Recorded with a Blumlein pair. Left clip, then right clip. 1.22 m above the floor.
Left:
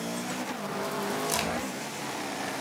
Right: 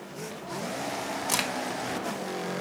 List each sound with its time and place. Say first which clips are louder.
1.3 s a crack: right 4 dB; 15° right, 1.2 m